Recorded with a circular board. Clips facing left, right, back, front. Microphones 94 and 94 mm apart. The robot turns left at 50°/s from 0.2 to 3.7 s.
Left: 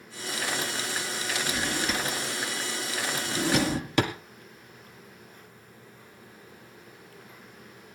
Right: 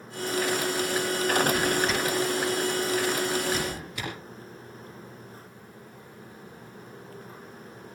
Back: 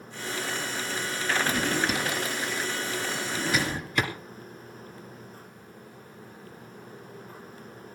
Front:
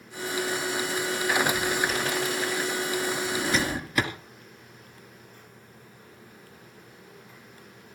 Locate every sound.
1.5 s a drawer: 165° right, 2.5 m; by 4.1 s 85° left, 2.5 m